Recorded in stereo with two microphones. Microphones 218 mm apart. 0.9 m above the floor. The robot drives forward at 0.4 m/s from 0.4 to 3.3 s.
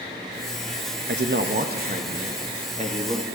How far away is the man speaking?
About 0.8 m.